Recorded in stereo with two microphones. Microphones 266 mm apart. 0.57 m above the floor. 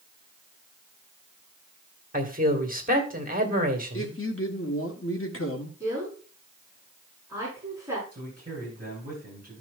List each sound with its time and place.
2.1 s a man speaking: 30° right (ahead or behind), 2.5 m
3.9 s a man speaking: 50° left (ahead or behind), 1.7 m
5.8 s a woman speaking: 10° right (ahead or behind), 7 m
8.1 s a man speaking: 30° right (ahead or behind), 8.5 m